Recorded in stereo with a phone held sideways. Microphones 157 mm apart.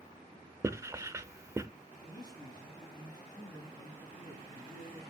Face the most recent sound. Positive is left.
turn(degrees=25)  # may be behind; listen again after turning